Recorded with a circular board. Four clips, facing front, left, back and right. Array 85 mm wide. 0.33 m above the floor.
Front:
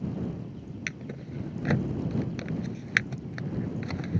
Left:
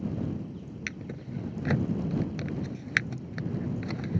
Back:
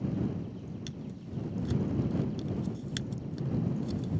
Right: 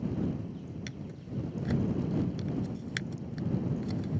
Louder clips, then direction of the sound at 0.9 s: Left 3 dB, front 3 dB; 30° left.